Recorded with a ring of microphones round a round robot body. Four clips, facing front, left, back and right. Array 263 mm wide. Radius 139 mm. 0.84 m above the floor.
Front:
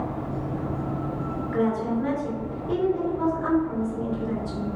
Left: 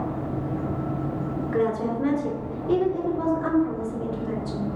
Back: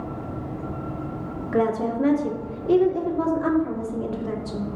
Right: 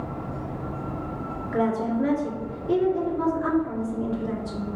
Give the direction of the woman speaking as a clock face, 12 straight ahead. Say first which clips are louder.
Right 1 dB, back 3 dB; 6 o'clock.